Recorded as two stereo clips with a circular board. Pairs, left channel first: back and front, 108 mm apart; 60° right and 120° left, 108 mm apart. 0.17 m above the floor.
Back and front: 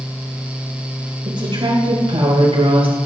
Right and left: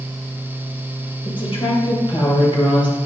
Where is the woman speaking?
35° right, 3.5 m; by 3.0 s 25° right, 4.5 m.